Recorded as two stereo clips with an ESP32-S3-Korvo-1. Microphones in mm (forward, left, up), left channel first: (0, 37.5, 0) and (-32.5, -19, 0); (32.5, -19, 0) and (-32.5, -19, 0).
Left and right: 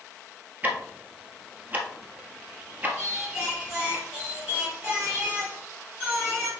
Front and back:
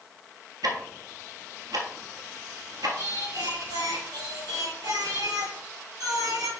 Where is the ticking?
175° left, 1.5 m.